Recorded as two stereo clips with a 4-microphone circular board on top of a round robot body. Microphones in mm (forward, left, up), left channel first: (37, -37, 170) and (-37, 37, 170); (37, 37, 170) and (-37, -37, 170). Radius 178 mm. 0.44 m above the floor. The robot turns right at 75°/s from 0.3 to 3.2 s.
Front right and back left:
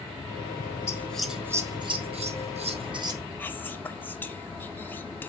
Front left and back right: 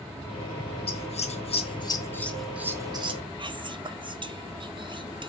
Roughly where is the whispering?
Behind right.